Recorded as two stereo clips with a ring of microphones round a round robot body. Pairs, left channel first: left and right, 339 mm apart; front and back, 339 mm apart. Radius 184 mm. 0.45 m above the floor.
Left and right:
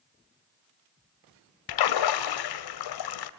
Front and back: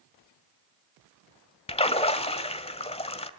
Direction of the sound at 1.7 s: 75° left.